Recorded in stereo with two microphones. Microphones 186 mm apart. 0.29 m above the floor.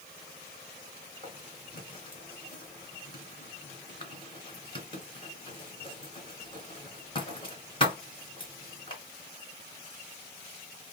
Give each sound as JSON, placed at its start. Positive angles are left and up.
{"t": 1.2, "sound": "writing", "side_deg": 30, "distance_m": 2.5}